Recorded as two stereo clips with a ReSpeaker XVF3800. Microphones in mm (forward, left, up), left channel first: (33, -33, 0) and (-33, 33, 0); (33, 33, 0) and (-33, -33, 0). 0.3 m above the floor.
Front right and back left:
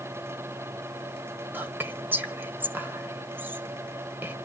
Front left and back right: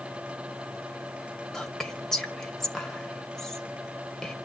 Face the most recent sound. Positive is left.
turn(degrees=120)